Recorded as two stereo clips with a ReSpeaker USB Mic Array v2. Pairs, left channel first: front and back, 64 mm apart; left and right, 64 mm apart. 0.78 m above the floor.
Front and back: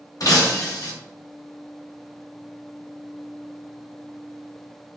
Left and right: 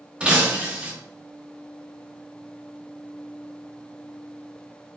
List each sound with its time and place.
0.2 s breaking glass: 20° right, 0.7 m